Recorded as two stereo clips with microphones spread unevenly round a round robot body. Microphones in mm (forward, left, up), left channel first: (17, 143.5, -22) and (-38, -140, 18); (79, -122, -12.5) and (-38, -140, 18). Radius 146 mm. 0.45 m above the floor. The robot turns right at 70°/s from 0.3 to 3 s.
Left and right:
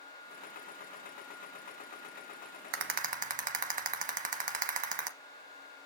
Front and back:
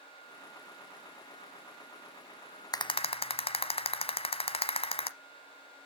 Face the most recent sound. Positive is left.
turn(degrees=-35)